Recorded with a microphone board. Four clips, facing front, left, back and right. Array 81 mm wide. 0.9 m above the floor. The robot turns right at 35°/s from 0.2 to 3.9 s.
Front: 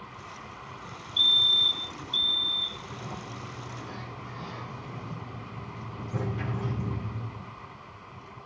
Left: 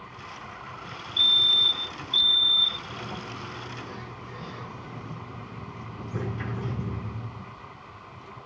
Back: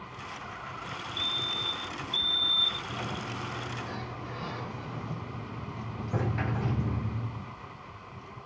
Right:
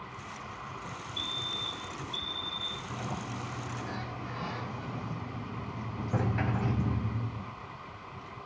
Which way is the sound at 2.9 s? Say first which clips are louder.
Left 1 dB, back 2 dB; 160° right.